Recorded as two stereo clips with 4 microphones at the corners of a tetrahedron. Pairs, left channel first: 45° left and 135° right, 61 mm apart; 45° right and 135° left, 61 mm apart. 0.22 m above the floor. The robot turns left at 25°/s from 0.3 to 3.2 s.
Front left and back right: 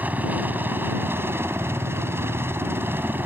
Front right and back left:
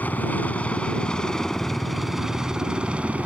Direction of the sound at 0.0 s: 90° right.